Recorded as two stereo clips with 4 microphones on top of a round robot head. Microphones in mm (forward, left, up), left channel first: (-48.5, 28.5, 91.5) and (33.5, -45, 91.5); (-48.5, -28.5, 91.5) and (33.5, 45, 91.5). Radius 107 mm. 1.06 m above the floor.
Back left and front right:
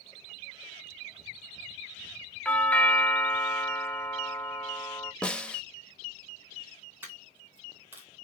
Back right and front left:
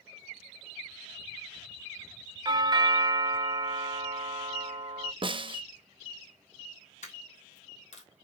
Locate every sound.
2.5 s a doorbell: 65° left, 0.6 m
5.2 s a snare drum: 60° left, 0.9 m
7.0 s a dropped coin: 115° right, 1.5 m